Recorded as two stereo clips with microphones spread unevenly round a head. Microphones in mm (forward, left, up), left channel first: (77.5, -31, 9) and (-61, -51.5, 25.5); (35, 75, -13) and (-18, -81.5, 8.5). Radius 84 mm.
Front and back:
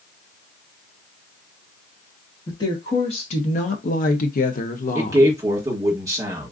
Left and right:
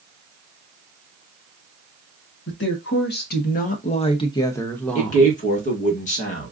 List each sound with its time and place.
2.5 s a woman speaking: 75° left, 1.1 m; by 5.3 s 20° right, 1.1 m
5.0 s a man speaking: 115° left, 1.3 m